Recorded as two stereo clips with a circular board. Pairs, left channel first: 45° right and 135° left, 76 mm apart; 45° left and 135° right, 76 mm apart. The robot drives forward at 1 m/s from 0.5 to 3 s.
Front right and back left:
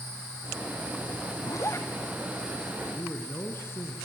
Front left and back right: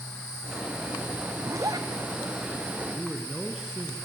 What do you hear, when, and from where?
1.4 s a zipper: 85° right, 1.3 m; by 1.9 s 105° right, 1.3 m
2.8 s a man speaking: 60° right, 2 m; by 4.0 s 65° right, 2 m